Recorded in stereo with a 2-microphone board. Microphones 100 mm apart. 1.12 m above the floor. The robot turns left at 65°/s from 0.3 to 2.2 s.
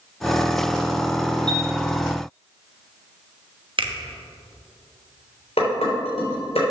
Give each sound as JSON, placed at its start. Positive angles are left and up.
{"t": 1.5, "sound": "a chime", "side_deg": 10, "distance_m": 2.5}
{"t": 3.8, "sound": "a finger snap", "side_deg": -55, "distance_m": 1.0}
{"t": 5.6, "sound": "dishes clattering", "side_deg": 85, "distance_m": 3.0}